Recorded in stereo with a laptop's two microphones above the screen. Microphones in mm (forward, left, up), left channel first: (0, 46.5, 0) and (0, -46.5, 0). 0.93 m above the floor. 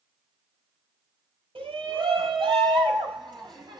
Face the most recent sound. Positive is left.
turn(degrees=-45)  # may be behind; listen again after turning